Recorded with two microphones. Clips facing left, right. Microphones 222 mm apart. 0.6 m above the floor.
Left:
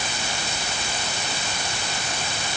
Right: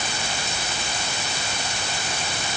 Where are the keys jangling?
I don't hear keys jangling.